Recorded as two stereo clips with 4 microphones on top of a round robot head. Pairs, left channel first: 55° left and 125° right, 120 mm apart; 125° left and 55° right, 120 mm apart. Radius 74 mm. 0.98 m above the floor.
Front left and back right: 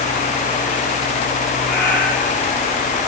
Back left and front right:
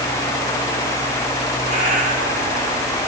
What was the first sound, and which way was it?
A cat meowing, 25° right.